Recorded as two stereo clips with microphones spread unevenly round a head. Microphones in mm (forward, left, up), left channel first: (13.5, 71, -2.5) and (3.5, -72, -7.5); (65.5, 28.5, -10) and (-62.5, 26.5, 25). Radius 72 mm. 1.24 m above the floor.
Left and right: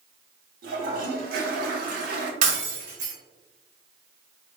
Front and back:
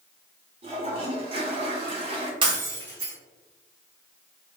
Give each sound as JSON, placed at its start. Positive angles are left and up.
{"t": 0.6, "sound": "a toilet flushing", "azimuth_deg": -125, "distance_m": 1.3}
{"t": 2.4, "sound": "breaking glass", "azimuth_deg": -130, "distance_m": 2.0}